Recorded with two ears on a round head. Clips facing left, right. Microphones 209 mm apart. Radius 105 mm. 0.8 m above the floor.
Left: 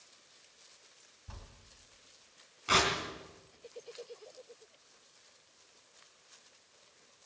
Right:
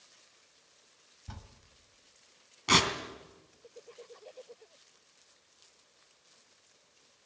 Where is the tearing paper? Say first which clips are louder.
Right 2 dB; 65° right (ahead or behind), 3 m.